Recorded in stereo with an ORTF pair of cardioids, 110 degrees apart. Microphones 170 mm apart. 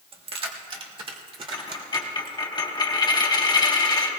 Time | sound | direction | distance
0.1 | keys jangling | 35° right | 1.4 m
1.5 | a dropped coin | 25° left | 2.5 m